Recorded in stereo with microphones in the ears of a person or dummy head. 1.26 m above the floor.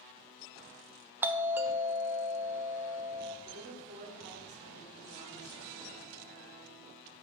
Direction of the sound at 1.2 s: 5° right (ahead or behind).